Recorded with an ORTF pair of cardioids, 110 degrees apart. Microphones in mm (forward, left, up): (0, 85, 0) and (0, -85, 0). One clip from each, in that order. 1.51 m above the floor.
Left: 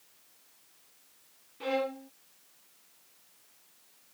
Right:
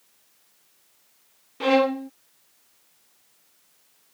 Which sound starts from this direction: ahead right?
A violin, at 1.6 s.